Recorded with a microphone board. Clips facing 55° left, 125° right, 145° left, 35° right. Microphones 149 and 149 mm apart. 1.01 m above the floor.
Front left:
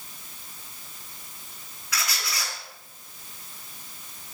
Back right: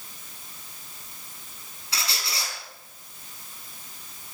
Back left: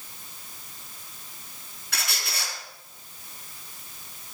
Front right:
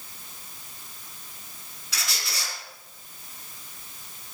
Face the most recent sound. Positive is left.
turn(degrees=175)